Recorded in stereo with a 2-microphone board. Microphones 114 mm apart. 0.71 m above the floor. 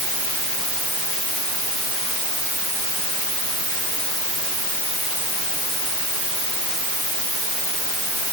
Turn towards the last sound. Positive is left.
No sound to turn to.